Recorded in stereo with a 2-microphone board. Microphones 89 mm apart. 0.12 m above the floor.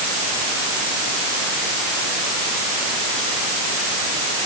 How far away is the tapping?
I don't hear tapping.